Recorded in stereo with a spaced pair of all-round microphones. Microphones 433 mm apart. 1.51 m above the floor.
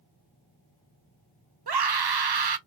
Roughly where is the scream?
Right.